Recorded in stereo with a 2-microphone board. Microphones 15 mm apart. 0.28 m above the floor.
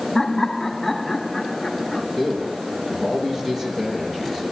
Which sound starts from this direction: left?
Laughter, at 0.1 s.